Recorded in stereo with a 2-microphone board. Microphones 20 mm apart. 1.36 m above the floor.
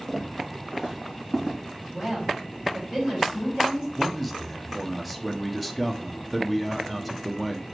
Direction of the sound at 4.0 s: Centre (ahead or behind).